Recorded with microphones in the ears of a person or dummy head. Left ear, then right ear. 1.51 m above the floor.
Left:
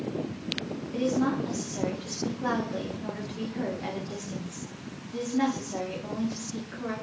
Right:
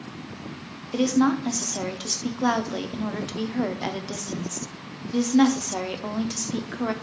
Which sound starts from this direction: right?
A woman speaking, at 0.9 s.